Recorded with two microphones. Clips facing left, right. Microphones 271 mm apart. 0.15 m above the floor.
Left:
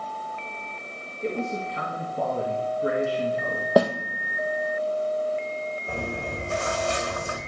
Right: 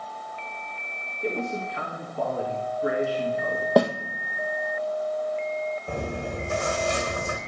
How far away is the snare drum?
About 1.0 m.